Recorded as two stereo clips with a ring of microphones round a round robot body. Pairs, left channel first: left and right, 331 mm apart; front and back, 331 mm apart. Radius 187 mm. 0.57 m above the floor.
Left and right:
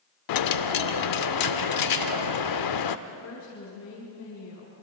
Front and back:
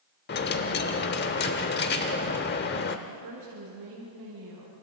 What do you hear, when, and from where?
0.3 s a dropped coin: 65° left, 0.7 m
3.1 s a woman speaking: 145° left, 6.5 m